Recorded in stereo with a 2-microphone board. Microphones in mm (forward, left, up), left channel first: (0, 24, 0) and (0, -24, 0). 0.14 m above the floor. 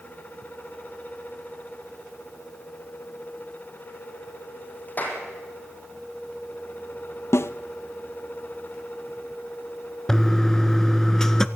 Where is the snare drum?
65° left (ahead or behind), 0.7 m.